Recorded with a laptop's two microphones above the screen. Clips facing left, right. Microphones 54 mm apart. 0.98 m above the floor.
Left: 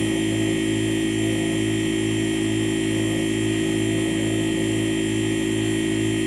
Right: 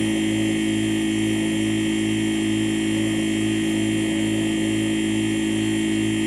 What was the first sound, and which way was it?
A machine running, 40° right (ahead or behind).